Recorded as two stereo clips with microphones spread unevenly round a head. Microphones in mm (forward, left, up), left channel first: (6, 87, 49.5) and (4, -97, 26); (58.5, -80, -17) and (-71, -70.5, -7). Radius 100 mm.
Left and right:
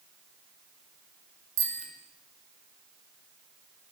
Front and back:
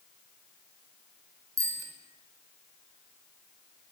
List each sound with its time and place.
1.6 s a bicycle bell: 120° right, 5 m